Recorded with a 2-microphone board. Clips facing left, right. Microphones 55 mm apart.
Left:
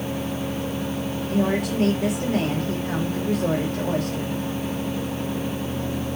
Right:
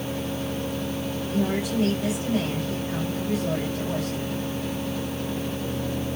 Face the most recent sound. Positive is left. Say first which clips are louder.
# left 3 dB
turn(degrees=70)  # may be behind; listen again after turning